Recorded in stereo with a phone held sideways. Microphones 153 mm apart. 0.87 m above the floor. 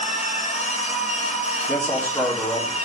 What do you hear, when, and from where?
0.0 s a machine running: 45° left (ahead or behind), 3.5 m
1.7 s a man speaking: 15° left (ahead or behind), 2.5 m